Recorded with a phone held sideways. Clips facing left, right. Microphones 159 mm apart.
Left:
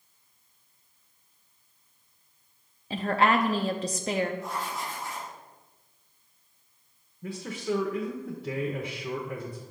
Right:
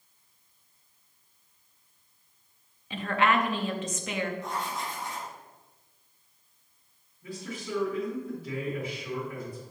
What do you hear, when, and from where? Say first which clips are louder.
2.9 s a woman speaking: left 2 dB; 40° left (ahead or behind), 0.5 m
4.4 s writing: even; 5° left (ahead or behind), 3 m
7.2 s a man speaking: left 6 dB; 75° left (ahead or behind), 0.8 m